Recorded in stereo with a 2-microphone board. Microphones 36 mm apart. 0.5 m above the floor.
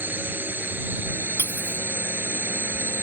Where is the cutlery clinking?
65° left (ahead or behind).